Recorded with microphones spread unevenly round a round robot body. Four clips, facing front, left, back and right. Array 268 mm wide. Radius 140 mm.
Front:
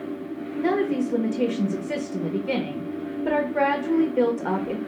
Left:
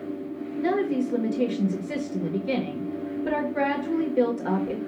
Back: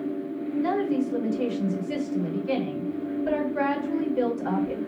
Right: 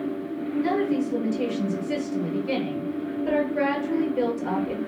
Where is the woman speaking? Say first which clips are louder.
Left 1 dB, front 3 dB; 15° left, 1.3 m.